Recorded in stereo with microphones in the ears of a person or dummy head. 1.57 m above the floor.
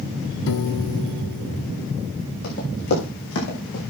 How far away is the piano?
About 1.0 m.